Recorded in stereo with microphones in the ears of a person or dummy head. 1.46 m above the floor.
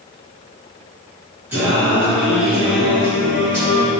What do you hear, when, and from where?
1.5 s singing: 10° right (ahead or behind), 1.1 m